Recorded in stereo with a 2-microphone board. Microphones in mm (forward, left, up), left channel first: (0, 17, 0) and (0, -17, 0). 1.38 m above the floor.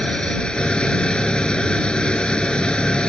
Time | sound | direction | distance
0.0 | an engine running | 30° left (ahead or behind) | ?